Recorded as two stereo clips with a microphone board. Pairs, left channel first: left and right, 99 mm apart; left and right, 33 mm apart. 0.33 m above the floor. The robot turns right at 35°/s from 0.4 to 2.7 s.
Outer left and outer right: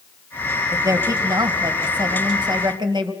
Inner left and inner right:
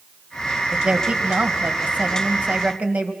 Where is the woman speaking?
145° right, 2.5 m; by 3.1 s 75° right, 2.5 m.